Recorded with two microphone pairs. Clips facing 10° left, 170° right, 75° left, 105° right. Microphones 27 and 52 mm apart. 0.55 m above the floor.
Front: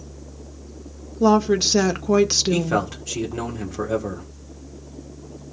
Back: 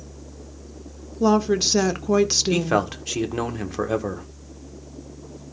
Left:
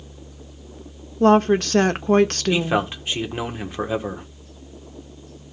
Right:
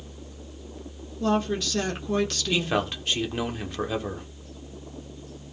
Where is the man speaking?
140° left, 1.8 m.